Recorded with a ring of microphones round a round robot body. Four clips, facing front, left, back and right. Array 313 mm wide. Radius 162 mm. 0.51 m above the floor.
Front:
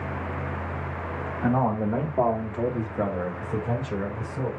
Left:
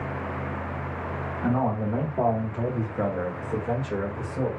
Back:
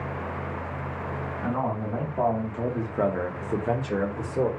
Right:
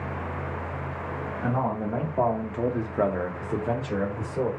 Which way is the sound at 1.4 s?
5° right.